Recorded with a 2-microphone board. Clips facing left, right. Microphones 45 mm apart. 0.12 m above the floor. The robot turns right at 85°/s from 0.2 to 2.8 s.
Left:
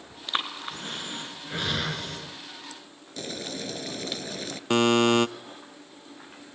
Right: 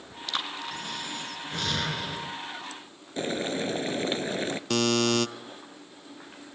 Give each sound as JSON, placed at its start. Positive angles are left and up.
{"t": 0.3, "sound": "breathing", "side_deg": 25, "distance_m": 1.6}
{"t": 3.2, "sound": "boiling", "side_deg": -30, "distance_m": 0.6}
{"t": 4.7, "sound": "a buzzer", "side_deg": 25, "distance_m": 0.6}